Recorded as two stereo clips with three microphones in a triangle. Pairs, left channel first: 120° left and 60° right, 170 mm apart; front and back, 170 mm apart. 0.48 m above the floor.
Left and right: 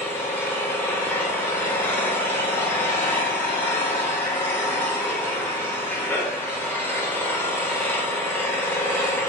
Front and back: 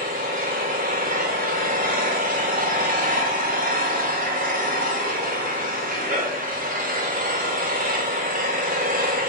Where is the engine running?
165° right, 1.3 m.